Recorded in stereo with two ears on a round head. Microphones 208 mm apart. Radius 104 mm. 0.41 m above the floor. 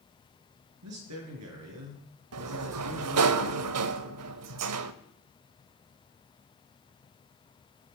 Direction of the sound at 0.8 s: 75° right (ahead or behind).